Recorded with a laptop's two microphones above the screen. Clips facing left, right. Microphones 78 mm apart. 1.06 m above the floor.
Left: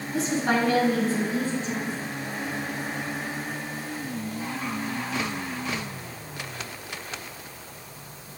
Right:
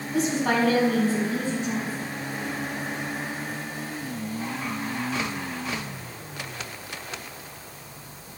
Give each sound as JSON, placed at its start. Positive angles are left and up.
{"t": 0.1, "sound": "a woman speaking", "side_deg": -85, "distance_m": 8.0}